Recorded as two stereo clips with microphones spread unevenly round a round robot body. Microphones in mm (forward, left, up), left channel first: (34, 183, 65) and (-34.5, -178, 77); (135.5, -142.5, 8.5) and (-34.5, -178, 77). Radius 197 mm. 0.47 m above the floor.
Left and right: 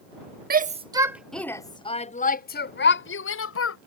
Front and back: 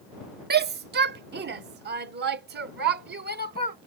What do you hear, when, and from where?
0.5 s a shout: 150° right; by 3.8 s 130° left